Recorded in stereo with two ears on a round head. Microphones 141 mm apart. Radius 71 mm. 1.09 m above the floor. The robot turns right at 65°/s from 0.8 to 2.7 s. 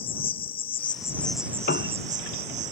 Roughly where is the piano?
Left.